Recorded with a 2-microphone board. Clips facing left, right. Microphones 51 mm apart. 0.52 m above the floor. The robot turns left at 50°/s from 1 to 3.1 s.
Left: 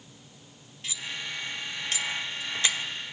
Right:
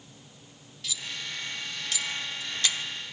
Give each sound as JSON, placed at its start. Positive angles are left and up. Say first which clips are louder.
{"t": 0.8, "sound": "cutlery clinking", "louder": "left 1 dB", "side_deg": 30, "distance_m": 0.6}